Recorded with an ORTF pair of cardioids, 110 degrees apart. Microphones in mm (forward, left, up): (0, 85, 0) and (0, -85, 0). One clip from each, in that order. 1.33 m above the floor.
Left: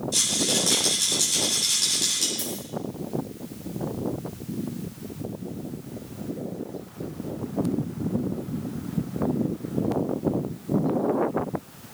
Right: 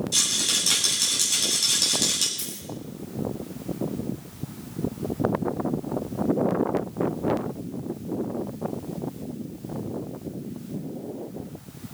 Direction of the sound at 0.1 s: 25° right.